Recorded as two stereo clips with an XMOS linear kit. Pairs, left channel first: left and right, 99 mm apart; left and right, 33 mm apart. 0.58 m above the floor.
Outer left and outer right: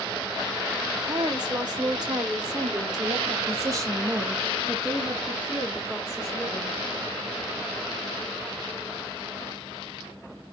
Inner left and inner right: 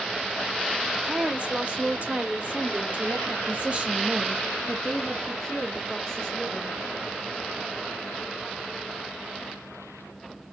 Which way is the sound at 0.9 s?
45° right (ahead or behind).